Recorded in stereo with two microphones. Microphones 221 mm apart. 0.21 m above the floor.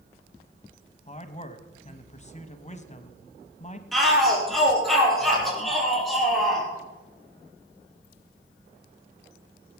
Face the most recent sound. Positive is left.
turn(degrees=0)  # may be behind; listen again after turning